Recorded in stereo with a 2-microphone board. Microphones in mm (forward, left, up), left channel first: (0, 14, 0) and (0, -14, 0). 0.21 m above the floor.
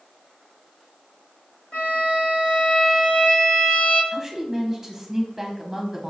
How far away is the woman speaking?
About 1.0 m.